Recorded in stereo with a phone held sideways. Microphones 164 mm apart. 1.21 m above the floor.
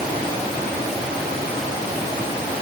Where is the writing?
No writing in this recording.